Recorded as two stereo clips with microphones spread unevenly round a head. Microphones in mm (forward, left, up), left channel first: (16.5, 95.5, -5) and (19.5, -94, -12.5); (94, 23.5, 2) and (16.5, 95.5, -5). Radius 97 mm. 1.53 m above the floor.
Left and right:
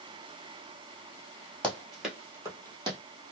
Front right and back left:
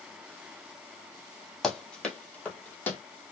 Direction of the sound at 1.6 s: 25° left.